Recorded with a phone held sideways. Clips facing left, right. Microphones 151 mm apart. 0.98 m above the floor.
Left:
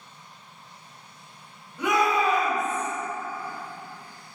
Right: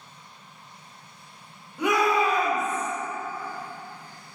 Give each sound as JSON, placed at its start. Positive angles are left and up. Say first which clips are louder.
{"t": 1.8, "sound": "a shout", "louder": "right 1 dB", "side_deg": -15, "distance_m": 1.4}